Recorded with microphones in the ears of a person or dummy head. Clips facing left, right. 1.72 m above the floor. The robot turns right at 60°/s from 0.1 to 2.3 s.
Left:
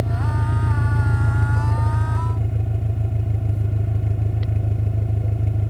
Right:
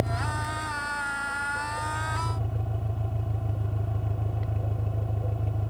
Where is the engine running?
20° left; by 5.7 s 155° left.